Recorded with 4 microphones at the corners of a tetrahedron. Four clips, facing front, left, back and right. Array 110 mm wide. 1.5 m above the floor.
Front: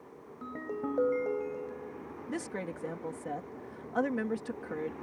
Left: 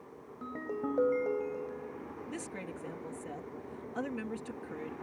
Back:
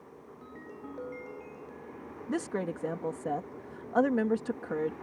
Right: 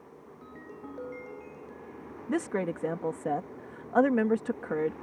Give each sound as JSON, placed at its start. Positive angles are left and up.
{"t": 0.4, "sound": "a ringtone", "azimuth_deg": 45}
{"t": 2.3, "sound": "a woman speaking", "azimuth_deg": -115}